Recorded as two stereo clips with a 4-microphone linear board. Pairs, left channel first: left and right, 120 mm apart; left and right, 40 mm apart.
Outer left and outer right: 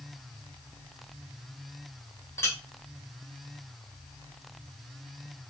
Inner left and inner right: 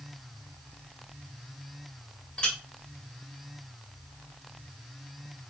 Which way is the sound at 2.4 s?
25° left (ahead or behind).